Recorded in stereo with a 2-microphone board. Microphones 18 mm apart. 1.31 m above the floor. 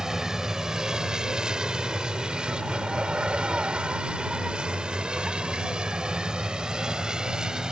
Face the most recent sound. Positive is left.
turn(degrees=-50)  # may be behind; listen again after turning